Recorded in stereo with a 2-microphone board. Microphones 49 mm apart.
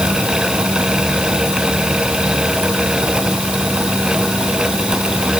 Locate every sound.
Only background noise.